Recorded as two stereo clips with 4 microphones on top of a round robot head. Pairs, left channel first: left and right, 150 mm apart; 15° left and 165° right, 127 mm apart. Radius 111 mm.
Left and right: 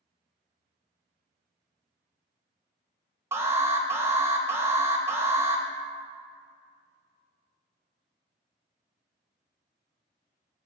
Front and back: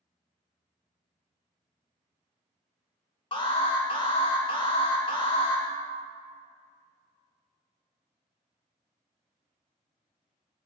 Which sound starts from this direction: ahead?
An alarm, at 3.3 s.